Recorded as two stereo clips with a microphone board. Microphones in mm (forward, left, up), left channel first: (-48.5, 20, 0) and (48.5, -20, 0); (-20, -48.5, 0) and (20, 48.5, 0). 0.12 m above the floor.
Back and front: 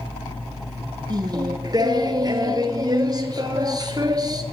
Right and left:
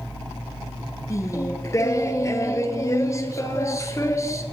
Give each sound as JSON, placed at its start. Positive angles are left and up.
{"t": 1.1, "sound": "singing", "azimuth_deg": -60, "distance_m": 1.5}